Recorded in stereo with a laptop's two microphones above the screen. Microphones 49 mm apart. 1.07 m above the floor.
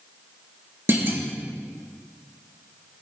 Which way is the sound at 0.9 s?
50° right (ahead or behind).